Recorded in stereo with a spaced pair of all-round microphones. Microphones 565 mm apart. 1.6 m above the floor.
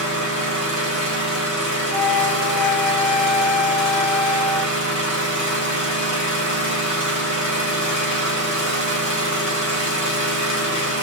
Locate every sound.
0.0 s an engine running: 35° left (ahead or behind), 1.6 m
1.9 s a flute: 60° right (ahead or behind), 0.7 m